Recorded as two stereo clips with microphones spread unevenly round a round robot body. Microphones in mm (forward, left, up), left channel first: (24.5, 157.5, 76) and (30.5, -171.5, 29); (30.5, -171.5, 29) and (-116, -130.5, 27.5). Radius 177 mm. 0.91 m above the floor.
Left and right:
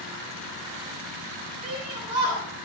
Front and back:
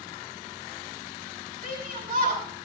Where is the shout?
165° right, 8.5 m.